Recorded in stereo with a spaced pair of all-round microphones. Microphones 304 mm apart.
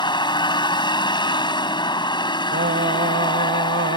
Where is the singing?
35° right (ahead or behind).